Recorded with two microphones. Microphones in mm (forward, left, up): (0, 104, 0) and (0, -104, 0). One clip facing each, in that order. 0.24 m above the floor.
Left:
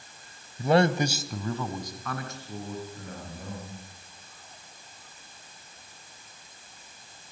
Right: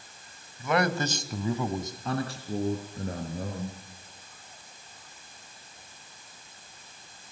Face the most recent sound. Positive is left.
turn(degrees=-40)  # may be behind; listen again after turning